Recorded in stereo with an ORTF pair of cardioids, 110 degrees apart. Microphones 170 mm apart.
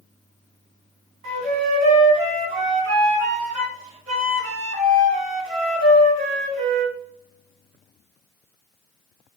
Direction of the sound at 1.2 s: 60° right.